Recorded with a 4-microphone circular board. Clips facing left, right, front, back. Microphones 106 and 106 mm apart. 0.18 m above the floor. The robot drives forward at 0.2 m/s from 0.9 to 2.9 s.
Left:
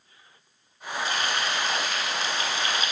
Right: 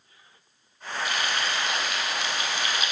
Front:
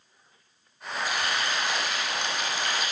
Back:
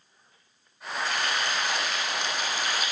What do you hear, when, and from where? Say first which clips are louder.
1.1 s frying: left 1 dB, even; 80° left, 1.2 m; by 2.9 s 110° left, 1.2 m